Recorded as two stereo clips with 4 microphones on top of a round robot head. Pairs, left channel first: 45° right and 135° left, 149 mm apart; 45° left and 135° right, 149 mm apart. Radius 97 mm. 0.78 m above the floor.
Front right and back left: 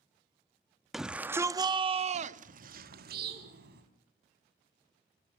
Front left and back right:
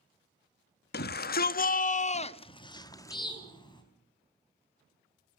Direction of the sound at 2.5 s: 105° left.